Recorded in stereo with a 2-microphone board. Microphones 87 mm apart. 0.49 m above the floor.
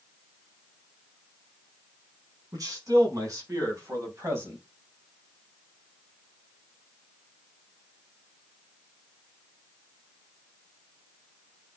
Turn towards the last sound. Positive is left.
turn(degrees=-30)  # may be behind; listen again after turning